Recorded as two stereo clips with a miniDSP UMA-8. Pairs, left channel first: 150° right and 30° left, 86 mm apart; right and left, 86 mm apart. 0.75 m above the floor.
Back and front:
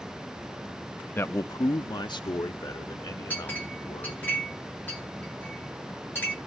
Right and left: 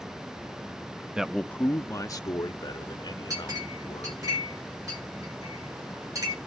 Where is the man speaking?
160° left, 0.6 m; by 4.3 s 120° right, 3 m.